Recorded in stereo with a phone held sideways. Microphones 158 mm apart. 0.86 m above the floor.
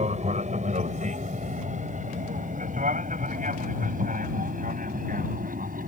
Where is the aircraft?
45° right (ahead or behind); by 5.9 s 60° right (ahead or behind).